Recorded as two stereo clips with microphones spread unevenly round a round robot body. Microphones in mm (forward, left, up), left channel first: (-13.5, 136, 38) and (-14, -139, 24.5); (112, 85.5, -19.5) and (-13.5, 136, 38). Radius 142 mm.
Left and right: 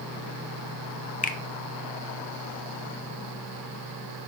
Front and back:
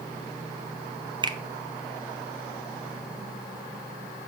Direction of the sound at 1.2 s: 85° left.